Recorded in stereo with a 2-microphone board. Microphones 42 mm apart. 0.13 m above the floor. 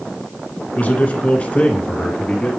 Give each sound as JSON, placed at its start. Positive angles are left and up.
{"t": 0.8, "sound": "a man speaking", "side_deg": 35, "distance_m": 2.0}